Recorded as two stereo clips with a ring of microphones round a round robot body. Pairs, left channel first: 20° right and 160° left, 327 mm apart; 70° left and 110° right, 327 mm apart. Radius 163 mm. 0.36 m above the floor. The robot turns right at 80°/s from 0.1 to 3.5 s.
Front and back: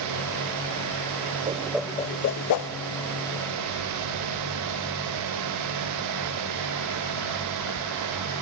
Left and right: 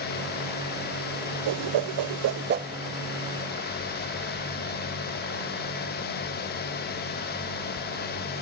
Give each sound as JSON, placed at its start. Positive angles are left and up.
{"t": 1.5, "sound": "a whoosh", "azimuth_deg": -140, "distance_m": 0.5}